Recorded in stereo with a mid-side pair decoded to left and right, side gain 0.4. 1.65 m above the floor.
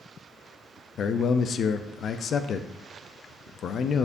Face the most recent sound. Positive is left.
turn(degrees=65)